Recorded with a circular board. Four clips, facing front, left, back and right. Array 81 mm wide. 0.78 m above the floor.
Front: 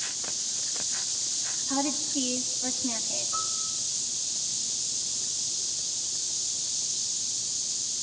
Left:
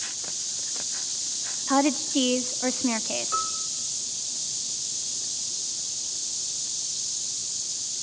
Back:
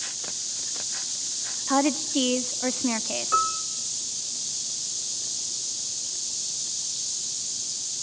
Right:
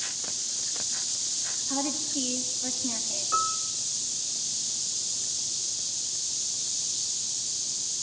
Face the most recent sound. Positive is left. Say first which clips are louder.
# right 4 dB, back 14 dB
turn(degrees=-175)